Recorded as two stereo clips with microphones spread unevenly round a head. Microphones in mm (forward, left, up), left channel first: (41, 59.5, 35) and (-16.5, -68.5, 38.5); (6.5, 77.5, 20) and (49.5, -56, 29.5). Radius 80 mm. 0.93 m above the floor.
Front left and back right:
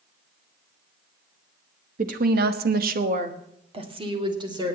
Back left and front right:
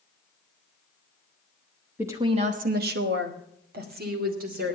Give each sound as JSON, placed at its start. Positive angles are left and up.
{"t": 2.0, "sound": "a woman speaking", "azimuth_deg": -150, "distance_m": 1.2}